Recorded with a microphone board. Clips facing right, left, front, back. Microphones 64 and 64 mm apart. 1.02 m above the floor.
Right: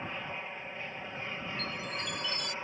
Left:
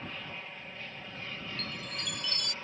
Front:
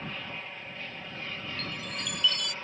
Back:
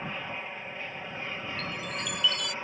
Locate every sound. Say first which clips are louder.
0.0 s an aircraft: right 3 dB, back 3 dB; 125° right
1.6 s a chime: right 3 dB, back 2 dB; 95° left